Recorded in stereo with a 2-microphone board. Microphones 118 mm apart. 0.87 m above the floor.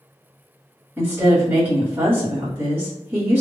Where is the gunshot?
No gunshot in this recording.